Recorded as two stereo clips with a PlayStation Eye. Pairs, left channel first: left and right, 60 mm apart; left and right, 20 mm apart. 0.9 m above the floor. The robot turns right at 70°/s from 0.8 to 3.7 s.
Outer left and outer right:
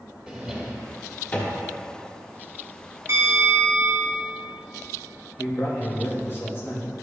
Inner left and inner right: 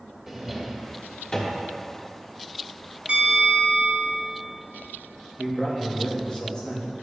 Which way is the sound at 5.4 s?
40° left (ahead or behind).